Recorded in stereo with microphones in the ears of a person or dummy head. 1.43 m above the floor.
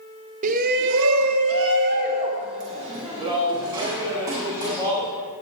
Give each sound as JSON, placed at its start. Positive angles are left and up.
{"t": 0.4, "sound": "a shout", "side_deg": -45, "distance_m": 0.8}